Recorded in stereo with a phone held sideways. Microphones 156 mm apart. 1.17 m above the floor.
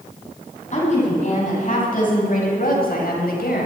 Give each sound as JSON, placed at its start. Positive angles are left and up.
{"t": 0.7, "sound": "a woman speaking", "side_deg": 45, "distance_m": 8.0}